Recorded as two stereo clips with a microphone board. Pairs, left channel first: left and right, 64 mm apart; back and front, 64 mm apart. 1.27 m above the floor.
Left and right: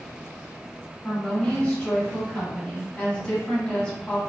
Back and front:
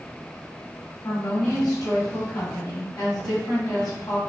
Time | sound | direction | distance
1.0 | a woman speaking | 165° left | 1.5 m